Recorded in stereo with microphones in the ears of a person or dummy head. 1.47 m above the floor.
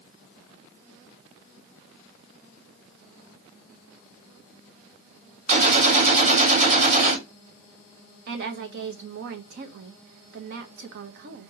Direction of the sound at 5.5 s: 40° right (ahead or behind).